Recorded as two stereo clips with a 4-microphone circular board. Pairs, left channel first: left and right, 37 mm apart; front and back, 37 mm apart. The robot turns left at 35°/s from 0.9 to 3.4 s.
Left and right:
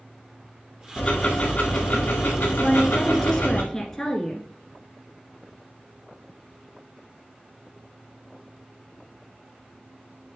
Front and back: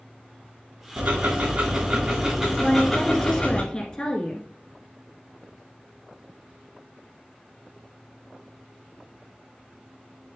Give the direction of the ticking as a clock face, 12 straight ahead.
7 o'clock.